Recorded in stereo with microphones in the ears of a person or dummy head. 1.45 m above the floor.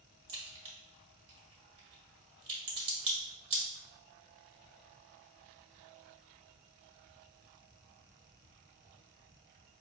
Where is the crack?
25° right (ahead or behind), 1.3 m.